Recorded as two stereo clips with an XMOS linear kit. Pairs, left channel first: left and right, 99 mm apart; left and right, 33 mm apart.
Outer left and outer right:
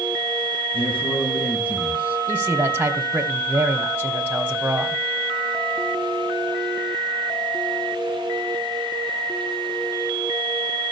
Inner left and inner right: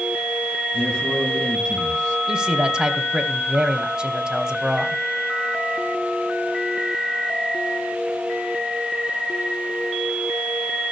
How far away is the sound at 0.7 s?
About 6 m.